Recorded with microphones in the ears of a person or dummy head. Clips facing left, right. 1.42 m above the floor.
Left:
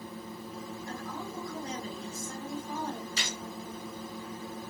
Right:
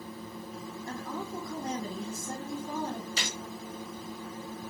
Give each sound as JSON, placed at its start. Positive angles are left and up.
{"t": 0.9, "sound": "a woman speaking", "side_deg": -50, "distance_m": 1.8}
{"t": 3.2, "sound": "a gunshot", "side_deg": -60, "distance_m": 1.8}